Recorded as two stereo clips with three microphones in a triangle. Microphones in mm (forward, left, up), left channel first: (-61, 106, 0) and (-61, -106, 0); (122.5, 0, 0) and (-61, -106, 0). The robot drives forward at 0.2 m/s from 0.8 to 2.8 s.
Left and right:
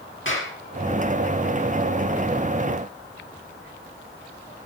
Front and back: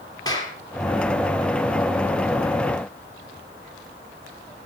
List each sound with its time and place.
0.2 s a clap: 100° left, 3.5 m